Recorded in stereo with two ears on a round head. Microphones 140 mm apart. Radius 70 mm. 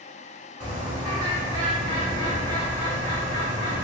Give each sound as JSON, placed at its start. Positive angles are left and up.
{"t": 0.6, "sound": "a bird", "side_deg": -25, "distance_m": 1.3}